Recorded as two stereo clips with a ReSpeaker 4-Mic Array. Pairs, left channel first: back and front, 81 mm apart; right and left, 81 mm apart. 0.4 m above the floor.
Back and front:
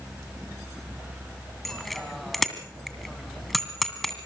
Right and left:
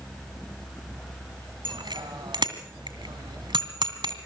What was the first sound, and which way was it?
A bicycle bell, 90° left.